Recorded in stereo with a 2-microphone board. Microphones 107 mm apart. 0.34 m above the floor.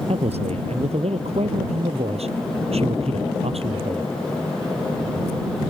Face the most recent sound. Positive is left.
turn(degrees=-75)  # may be behind; listen again after turning